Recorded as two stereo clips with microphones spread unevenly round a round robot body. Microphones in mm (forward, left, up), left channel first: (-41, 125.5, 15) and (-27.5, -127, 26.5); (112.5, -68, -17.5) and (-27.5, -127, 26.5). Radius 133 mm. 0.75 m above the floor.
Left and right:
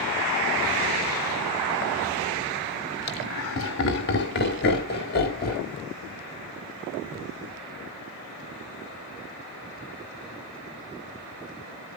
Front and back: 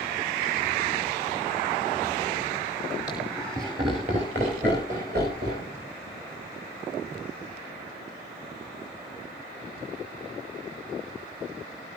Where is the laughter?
110° left, 1.9 m; by 5.7 s 145° left, 4.5 m.